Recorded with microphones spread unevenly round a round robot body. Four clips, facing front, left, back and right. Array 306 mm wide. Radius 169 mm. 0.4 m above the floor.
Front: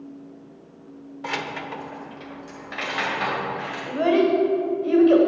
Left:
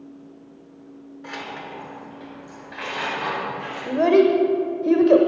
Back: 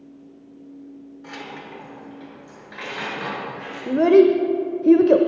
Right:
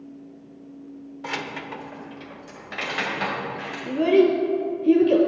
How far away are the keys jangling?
About 1.0 m.